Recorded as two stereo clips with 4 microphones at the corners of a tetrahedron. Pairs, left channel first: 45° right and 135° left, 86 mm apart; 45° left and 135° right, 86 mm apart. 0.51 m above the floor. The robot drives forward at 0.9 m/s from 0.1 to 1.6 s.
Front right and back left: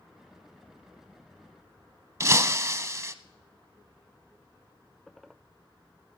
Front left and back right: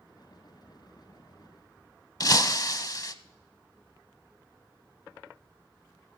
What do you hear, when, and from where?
2.2 s breaking glass: 85° left, 0.6 m